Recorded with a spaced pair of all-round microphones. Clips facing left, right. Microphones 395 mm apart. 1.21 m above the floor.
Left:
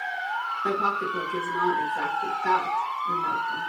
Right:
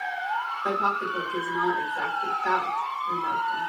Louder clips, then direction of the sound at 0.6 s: Left 2 dB; 40° left (ahead or behind).